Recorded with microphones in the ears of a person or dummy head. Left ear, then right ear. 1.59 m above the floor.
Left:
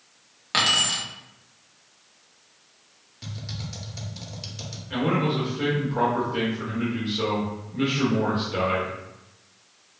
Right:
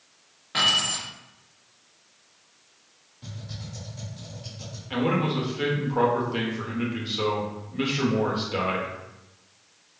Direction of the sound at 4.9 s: 25° right (ahead or behind).